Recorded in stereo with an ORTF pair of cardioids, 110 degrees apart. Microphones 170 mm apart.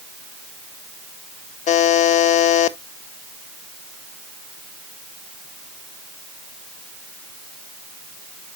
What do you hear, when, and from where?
1.7 s a buzzer: 50° left, 0.8 m